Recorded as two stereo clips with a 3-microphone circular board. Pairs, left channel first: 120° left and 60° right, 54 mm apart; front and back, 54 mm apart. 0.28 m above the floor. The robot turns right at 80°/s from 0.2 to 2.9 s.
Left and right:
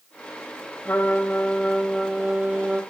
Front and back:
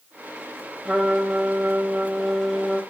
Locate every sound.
0.8 s a trumpet: 110° left, 1.6 m; by 2.8 s 90° right, 1.6 m